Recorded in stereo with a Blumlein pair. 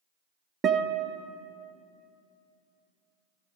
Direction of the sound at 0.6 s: 25° right.